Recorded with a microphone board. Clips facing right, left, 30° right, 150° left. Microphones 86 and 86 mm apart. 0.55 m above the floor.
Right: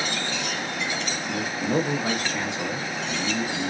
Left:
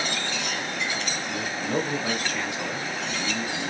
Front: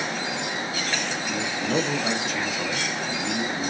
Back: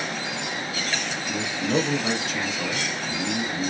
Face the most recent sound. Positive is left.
turn(degrees=-115)